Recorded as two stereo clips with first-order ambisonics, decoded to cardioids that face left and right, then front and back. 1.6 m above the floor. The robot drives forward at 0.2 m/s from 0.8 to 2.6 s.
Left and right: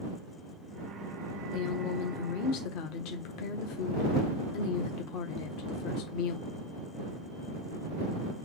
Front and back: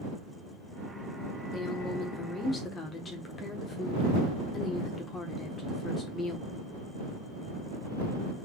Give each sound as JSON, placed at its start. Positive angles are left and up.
{"t": 1.5, "sound": "a woman speaking", "azimuth_deg": 60, "distance_m": 1.3}